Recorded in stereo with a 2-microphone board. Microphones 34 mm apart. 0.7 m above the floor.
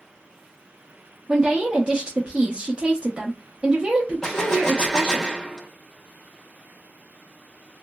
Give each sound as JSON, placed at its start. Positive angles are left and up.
{"t": 1.3, "sound": "a woman speaking", "side_deg": -25, "distance_m": 0.6}
{"t": 4.2, "sound": "a gunshot", "side_deg": 20, "distance_m": 0.6}